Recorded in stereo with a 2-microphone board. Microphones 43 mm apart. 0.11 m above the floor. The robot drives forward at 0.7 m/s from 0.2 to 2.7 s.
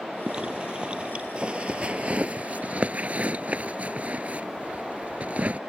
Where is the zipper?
20° right (ahead or behind); by 5.6 s 35° right (ahead or behind).